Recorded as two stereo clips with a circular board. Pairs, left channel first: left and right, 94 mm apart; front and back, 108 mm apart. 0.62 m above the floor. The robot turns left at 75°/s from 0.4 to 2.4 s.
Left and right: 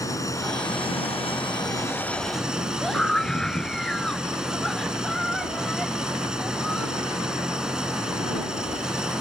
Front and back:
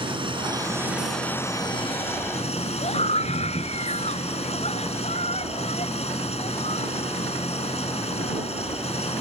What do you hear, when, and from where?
0.0 s an engine running: 140° left; by 9.2 s 10° right
2.8 s a scream: 5° left